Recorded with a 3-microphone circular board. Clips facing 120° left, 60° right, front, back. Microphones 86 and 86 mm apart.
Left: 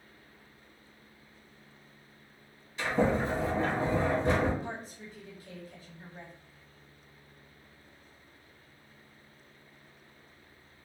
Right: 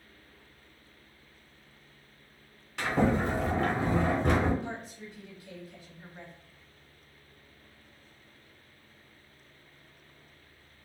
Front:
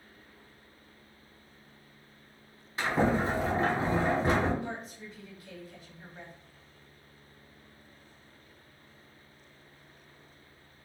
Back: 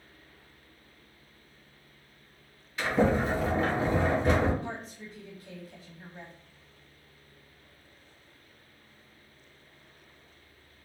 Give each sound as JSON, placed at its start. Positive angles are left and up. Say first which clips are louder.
{"t": 2.8, "sound": "a sliding door", "louder": "right 1 dB, back 2 dB", "azimuth_deg": -55, "distance_m": 1.0}
{"t": 4.6, "sound": "a woman speaking", "louder": "right 1 dB, even", "azimuth_deg": 140, "distance_m": 1.4}